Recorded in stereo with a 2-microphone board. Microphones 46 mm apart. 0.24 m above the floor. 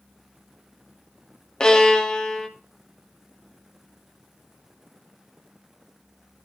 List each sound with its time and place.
1.6 s a violin: 20° left (ahead or behind), 0.7 m